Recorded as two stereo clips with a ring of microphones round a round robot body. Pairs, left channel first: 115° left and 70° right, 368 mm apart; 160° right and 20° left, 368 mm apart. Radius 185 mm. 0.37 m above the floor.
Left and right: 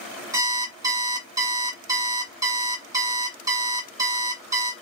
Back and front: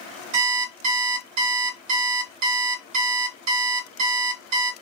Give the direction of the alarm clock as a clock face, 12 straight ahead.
12 o'clock.